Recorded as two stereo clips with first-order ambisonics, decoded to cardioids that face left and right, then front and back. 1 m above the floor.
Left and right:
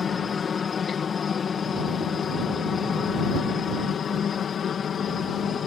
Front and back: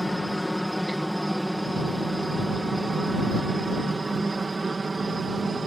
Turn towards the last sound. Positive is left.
turn(degrees=125)